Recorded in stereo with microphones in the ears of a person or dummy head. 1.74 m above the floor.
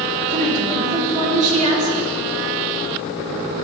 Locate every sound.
0.3 s a woman speaking: 35° right (ahead or behind), 4 m